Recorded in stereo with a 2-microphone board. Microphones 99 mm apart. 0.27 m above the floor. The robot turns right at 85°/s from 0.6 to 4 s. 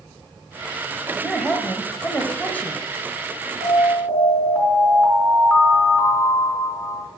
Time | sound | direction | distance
1.1 | a man speaking | centre (ahead or behind) | 1.0 m
3.6 | an alarm | 135° left | 4 m